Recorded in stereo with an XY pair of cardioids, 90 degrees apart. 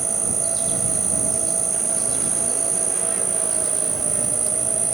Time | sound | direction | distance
0.0 | an insect | 40° right | ?